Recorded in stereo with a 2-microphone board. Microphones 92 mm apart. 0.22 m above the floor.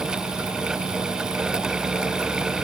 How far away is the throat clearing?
No throat clearing in this recording.